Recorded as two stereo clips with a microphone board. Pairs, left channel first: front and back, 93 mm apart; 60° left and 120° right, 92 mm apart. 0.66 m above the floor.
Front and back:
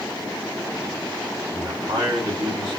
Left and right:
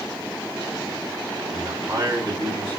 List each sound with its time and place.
1.5 s a man speaking: 175° left, 1.9 m